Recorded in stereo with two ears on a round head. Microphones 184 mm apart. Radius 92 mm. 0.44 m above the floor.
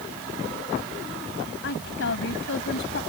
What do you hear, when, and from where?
1.6 s a woman speaking: 65° left (ahead or behind)